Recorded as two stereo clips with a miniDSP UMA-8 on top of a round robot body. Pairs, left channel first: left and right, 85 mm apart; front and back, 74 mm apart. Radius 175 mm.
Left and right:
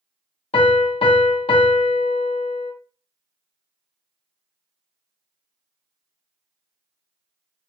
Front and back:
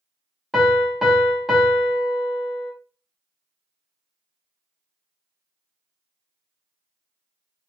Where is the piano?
90° left, 0.6 m.